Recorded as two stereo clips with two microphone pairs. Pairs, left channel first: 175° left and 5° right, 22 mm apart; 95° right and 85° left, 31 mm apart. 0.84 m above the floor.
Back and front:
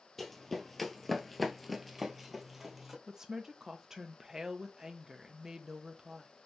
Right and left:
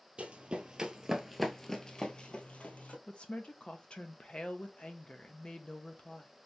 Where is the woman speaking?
70° right, 0.8 m.